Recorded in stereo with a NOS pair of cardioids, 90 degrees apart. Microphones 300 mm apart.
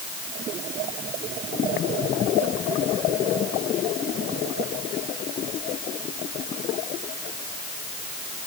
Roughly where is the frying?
No frying in this recording.